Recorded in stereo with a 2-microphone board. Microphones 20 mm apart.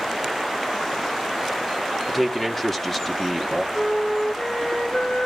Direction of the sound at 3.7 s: 60° left (ahead or behind).